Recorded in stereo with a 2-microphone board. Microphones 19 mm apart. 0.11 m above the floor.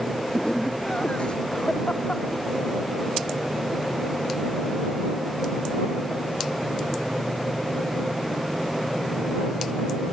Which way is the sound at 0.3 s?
70° left (ahead or behind).